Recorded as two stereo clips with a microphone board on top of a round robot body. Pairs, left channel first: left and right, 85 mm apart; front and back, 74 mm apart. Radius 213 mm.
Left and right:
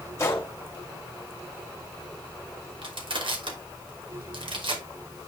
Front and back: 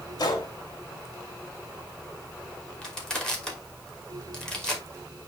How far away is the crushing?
About 3 m.